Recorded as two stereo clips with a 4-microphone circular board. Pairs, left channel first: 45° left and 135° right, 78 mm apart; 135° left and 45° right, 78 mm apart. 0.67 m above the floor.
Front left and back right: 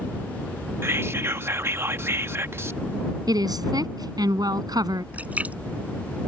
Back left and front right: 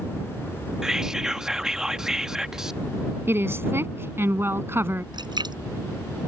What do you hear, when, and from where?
0.8 s whispering: 125° right
3.3 s a woman speaking: 105° right
5.1 s a splash: 65° right